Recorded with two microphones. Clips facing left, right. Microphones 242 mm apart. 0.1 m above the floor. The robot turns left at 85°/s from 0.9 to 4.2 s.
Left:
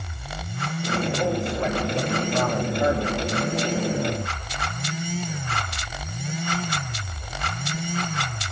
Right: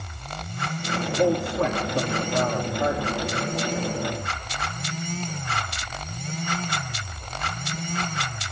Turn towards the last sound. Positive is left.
turn(degrees=60)